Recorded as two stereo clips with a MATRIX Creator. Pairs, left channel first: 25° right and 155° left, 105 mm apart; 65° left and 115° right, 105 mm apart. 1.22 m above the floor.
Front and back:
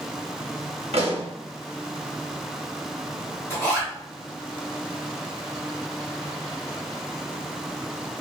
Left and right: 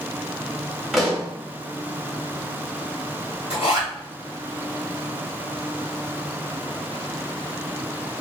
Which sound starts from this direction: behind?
A pop, at 0.9 s.